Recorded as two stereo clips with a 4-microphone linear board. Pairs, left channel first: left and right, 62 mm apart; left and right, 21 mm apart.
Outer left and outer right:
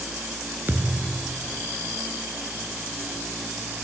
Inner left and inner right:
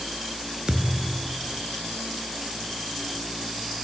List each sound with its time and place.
0.7 s a thud: 35° right (ahead or behind), 2 m